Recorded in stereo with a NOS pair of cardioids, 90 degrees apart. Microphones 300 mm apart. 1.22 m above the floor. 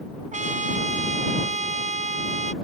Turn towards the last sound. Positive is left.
turn(degrees=-25)